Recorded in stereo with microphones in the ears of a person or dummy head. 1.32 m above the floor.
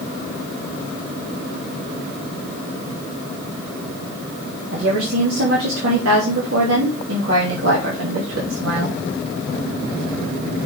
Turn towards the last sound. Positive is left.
turn(degrees=-80)